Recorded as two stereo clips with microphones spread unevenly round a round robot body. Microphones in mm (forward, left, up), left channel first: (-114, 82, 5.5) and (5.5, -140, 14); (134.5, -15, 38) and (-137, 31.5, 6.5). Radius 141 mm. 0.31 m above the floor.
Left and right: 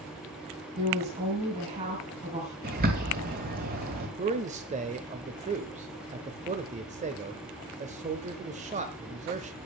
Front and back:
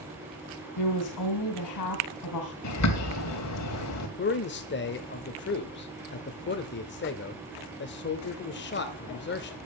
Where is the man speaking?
20° right, 0.9 m.